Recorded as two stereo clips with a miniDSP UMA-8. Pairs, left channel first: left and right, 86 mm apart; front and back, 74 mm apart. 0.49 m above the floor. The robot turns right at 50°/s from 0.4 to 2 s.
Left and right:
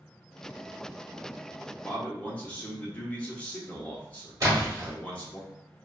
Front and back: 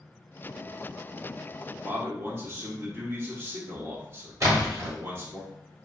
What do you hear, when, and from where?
1.8 s a man speaking: 145° left, 0.8 m; by 5.4 s 155° left, 0.8 m
4.4 s a splash: 135° right, 1.4 m